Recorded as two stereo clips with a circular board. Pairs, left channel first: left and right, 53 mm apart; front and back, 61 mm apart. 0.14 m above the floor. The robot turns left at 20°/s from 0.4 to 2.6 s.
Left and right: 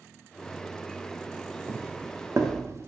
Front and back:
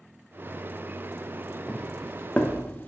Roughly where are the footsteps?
Right.